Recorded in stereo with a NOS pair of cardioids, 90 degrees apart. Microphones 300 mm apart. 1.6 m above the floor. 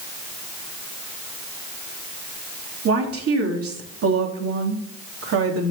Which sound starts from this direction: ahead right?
A woman speaking, at 2.9 s.